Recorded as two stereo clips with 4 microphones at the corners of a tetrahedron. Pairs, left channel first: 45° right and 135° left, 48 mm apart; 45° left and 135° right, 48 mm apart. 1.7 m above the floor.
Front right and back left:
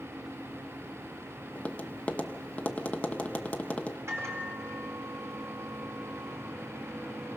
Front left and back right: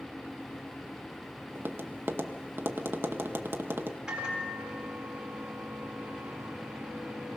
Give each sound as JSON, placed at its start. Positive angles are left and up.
{"t": 1.6, "sound": "tapping", "azimuth_deg": -105, "distance_m": 1.0}
{"t": 4.1, "sound": "a microwave", "azimuth_deg": 150, "distance_m": 4.0}